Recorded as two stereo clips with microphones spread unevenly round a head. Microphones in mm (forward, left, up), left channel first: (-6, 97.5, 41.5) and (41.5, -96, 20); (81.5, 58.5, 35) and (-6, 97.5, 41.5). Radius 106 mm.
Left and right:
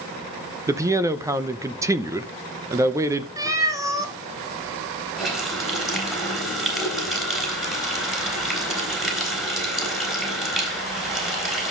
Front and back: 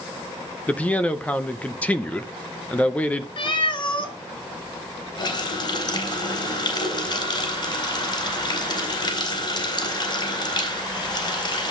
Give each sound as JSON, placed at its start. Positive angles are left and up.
{"t": 0.7, "sound": "a man speaking", "azimuth_deg": -55, "distance_m": 0.7}
{"t": 3.4, "sound": "a cat meowing", "azimuth_deg": 0, "distance_m": 1.4}
{"t": 5.2, "sound": "a running tap", "azimuth_deg": 15, "distance_m": 3.5}